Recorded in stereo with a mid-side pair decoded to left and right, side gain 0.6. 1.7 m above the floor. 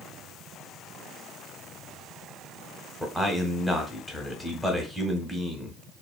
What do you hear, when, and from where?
3.0 s a man speaking: 5° left, 1.0 m